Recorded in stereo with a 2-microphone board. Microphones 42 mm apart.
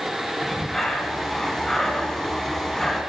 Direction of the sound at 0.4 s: 10° left (ahead or behind).